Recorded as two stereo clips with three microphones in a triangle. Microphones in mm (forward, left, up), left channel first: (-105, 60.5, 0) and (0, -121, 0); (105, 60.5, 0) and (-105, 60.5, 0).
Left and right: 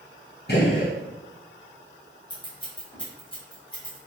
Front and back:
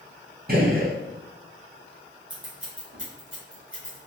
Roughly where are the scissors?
Behind.